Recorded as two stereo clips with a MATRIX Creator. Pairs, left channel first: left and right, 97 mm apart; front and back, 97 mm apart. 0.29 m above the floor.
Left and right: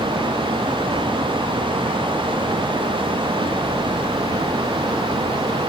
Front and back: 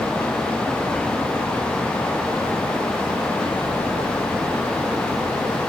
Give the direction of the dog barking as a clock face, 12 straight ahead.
No dog barking in this recording.